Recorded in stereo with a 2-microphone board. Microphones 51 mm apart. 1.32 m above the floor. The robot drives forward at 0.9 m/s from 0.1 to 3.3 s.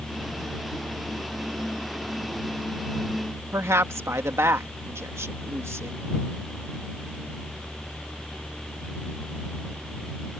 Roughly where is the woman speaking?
Right.